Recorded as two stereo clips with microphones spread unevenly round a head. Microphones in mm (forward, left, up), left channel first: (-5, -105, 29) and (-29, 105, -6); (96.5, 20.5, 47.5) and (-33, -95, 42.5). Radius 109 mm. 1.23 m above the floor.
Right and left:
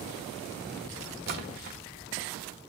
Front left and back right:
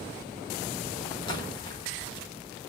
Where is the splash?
90° left, 1.0 m.